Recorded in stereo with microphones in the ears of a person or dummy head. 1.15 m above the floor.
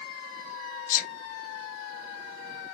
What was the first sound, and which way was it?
A sneeze, 45° left (ahead or behind).